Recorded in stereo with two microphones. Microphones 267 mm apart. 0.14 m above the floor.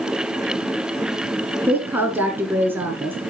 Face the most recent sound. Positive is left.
turn(degrees=-5)  # may be behind; listen again after turning